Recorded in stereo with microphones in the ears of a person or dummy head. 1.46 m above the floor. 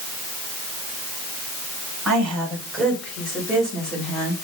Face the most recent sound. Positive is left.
turn(degrees=5)  # may be behind; listen again after turning